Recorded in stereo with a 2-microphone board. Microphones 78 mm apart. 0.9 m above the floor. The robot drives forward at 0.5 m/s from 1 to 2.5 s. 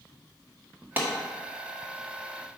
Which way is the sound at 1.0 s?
25° right (ahead or behind).